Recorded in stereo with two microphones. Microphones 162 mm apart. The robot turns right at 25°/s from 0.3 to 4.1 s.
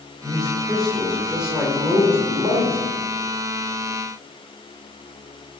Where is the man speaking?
10° left (ahead or behind), 1.6 m; by 2.8 s 20° right (ahead or behind), 1.6 m.